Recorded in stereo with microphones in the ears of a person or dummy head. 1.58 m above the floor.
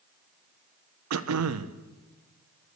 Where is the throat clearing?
80° right, 1.1 m.